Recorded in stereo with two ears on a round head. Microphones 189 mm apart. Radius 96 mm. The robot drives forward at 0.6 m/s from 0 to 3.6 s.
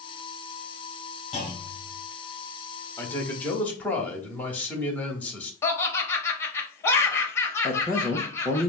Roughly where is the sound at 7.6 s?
Centre.